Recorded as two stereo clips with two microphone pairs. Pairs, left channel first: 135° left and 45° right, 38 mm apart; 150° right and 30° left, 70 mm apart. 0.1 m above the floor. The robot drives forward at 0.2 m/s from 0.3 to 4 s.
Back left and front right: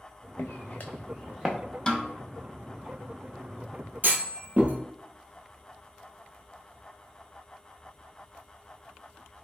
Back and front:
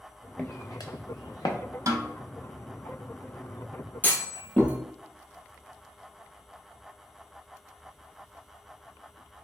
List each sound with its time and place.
0.4 s footsteps: 150° left, 0.5 m; by 1.6 s 125° right, 1.1 m
1.9 s a snare drum: 60° left, 0.7 m; by 2.1 s 65° left, 0.6 m
4.0 s a clunk: 85° right, 1.1 m